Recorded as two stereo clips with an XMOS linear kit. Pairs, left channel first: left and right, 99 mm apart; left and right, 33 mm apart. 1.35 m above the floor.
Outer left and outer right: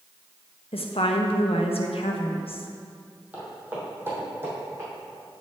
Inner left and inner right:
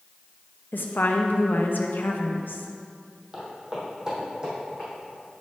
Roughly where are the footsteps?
Centre.